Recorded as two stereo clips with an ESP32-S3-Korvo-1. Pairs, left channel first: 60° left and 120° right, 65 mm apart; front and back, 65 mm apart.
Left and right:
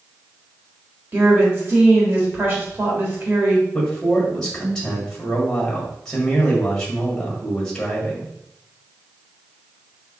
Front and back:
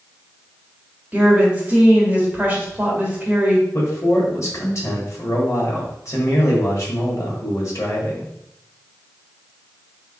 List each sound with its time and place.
1.1 s a woman speaking: 135° right, 1.6 m
3.7 s a man speaking: 20° right, 1.6 m